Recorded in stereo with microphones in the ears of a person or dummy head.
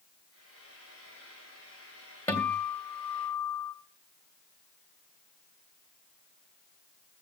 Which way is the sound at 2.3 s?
10° left (ahead or behind).